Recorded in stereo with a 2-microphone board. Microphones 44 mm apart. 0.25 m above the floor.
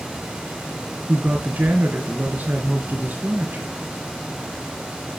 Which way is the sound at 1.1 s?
40° right (ahead or behind).